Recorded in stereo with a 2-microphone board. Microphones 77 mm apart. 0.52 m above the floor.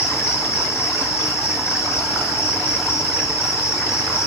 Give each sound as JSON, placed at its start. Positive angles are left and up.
{"t": 0.0, "sound": "an insect", "side_deg": 35, "distance_m": 3.5}